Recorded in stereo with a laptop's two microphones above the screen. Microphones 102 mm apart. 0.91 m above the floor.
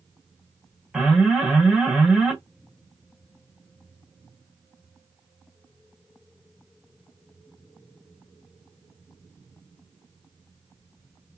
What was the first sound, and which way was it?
An alarm, 5° right (ahead or behind).